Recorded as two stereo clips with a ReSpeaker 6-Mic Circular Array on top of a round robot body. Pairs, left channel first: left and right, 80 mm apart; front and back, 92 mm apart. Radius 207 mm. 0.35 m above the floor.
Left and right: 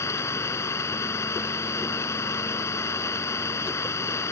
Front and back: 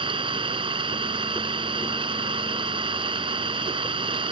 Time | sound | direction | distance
0.0 | an engine running | 145° left | ?